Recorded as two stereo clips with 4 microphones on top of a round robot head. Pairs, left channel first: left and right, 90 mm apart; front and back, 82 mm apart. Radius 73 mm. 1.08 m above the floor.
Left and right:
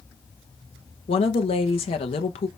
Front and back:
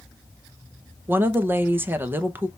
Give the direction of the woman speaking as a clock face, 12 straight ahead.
8 o'clock.